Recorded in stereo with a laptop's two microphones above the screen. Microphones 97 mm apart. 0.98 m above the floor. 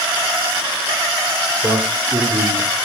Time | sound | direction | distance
1.6 | a man speaking | 20° right (ahead or behind) | 3.5 m